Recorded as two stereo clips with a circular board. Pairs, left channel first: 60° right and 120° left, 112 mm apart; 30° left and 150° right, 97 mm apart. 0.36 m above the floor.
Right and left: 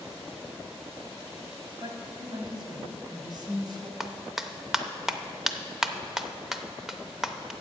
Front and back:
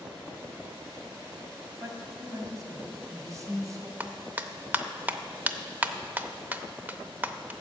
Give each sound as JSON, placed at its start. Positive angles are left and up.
{"t": 1.8, "sound": "a woman speaking", "azimuth_deg": 160, "distance_m": 2.0}
{"t": 4.0, "sound": "a clap", "azimuth_deg": -160, "distance_m": 0.6}